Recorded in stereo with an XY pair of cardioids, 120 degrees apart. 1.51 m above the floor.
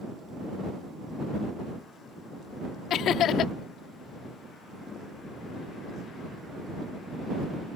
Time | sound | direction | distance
2.9 | laughter | 65° left | ?